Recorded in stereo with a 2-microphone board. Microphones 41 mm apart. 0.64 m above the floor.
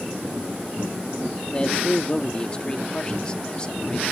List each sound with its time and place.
1.5 s a man speaking: 20° left (ahead or behind)